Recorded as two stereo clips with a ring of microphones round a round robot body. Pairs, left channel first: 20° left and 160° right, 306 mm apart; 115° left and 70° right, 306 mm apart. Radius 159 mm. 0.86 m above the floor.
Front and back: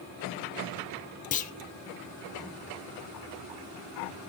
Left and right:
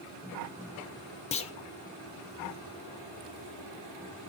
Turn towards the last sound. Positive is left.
turn(degrees=60)